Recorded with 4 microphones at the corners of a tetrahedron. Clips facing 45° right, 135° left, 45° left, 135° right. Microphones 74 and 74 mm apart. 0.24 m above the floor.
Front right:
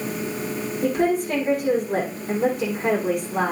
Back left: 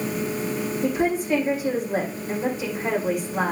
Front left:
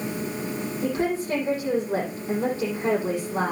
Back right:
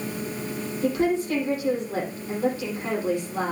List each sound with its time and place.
0.8 s a woman speaking: 10° right, 8 m